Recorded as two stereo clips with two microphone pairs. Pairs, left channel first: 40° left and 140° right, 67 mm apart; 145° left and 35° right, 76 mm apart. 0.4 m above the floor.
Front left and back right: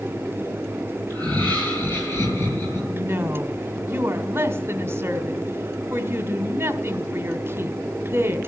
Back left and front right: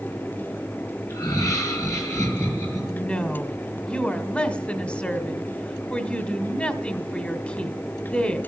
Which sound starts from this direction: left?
Laughter, at 1.1 s.